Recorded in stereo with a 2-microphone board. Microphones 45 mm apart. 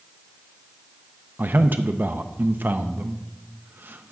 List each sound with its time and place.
1.4 s a man speaking: 45° right (ahead or behind), 0.5 m